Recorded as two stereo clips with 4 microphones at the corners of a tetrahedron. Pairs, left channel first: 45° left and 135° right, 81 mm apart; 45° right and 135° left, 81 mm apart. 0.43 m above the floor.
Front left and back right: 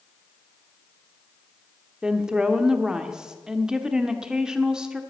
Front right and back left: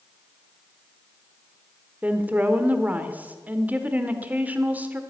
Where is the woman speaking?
160° left, 1.1 m.